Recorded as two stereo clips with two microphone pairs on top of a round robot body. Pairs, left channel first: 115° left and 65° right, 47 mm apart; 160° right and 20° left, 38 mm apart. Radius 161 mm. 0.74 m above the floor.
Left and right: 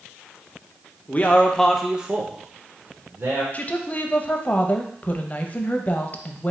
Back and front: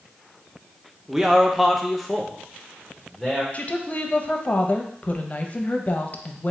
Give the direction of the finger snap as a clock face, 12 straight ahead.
I don't hear a finger snap.